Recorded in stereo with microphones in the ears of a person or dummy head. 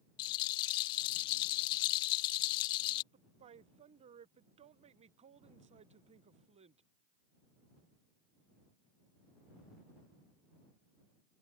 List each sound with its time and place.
0.2 s a rattle: 30° left (ahead or behind)
3.1 s a woman speaking: 30° right (ahead or behind)